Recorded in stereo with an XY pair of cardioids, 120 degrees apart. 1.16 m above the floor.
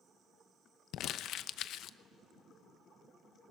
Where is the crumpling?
70° left, 0.7 m.